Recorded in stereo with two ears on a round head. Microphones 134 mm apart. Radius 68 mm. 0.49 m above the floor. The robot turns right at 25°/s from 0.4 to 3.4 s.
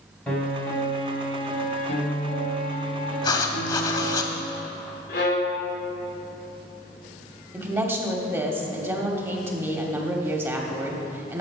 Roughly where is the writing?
Left.